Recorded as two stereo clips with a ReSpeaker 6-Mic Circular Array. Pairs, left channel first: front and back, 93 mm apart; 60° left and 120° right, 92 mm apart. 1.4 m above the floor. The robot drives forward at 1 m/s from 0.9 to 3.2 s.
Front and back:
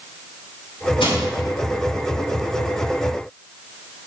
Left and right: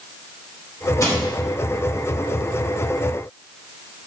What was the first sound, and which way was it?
Crushing, 5° left.